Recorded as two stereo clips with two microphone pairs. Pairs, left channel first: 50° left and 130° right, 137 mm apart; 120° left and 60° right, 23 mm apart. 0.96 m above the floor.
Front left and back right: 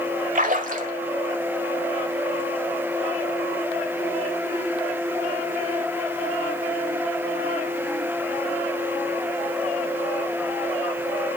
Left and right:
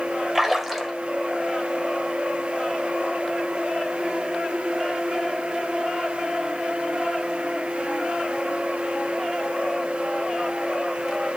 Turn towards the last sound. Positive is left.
turn(degrees=-145)